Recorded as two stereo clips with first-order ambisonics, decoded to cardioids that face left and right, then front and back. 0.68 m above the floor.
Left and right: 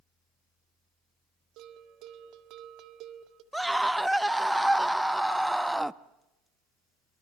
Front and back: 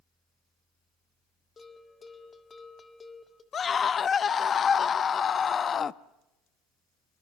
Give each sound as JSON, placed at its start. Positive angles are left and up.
{"t": 1.6, "sound": "a bell", "azimuth_deg": -70, "distance_m": 1.7}
{"t": 3.5, "sound": "a scream", "azimuth_deg": -5, "distance_m": 0.5}